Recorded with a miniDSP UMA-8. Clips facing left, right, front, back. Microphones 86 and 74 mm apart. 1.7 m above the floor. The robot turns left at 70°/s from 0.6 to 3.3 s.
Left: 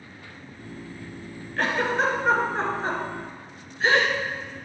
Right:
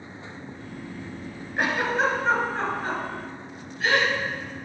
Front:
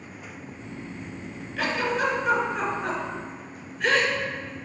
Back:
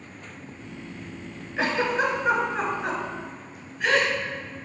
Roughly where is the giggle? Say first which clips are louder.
Even, back 2 dB; behind right.